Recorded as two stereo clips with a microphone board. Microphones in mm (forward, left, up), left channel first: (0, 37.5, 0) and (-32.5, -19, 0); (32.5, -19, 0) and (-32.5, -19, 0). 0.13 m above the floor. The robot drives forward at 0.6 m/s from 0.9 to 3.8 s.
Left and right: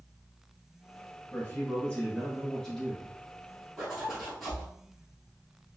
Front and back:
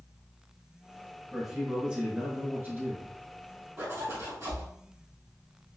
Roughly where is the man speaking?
Left.